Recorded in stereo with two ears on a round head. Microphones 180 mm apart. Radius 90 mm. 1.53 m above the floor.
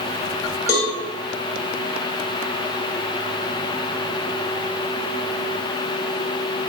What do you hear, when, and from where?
0.7 s a cowbell: 15° left (ahead or behind), 0.8 m